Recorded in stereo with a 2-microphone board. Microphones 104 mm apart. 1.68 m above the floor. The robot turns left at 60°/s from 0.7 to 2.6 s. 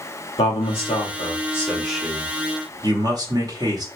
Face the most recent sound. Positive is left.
turn(degrees=-40)